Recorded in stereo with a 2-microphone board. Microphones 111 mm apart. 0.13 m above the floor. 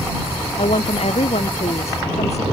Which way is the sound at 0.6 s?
75° left (ahead or behind).